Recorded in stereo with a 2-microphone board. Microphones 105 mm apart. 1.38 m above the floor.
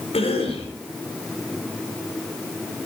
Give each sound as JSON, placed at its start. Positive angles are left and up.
{"t": 0.1, "sound": "a cough", "side_deg": 75, "distance_m": 5.0}